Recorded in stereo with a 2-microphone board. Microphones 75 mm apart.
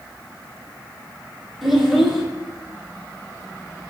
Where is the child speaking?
Centre (ahead or behind), 2.5 m.